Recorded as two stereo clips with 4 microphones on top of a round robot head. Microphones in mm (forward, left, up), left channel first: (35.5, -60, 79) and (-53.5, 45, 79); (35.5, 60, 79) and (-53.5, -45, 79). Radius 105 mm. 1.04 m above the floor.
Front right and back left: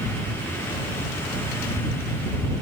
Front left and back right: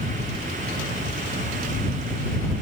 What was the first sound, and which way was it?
Only background noise.